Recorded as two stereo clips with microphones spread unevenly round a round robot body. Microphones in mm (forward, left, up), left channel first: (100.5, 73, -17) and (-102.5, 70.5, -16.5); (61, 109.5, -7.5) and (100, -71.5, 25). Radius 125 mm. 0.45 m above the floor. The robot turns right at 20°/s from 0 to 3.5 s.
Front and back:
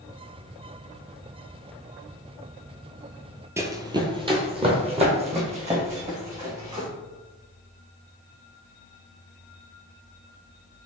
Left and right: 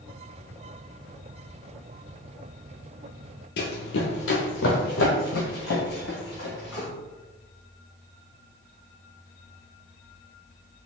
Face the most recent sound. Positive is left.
turn(degrees=125)